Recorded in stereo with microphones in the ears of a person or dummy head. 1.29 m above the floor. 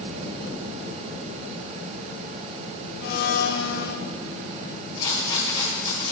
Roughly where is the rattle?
Left.